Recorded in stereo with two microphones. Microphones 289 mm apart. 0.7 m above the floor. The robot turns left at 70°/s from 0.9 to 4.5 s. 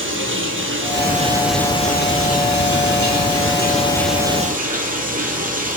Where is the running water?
135° right, 5.5 m; by 5.8 s 30° right, 5.5 m.